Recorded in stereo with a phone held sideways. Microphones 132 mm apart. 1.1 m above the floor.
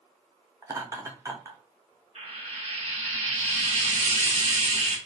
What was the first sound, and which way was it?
Laughter, 25° right (ahead or behind).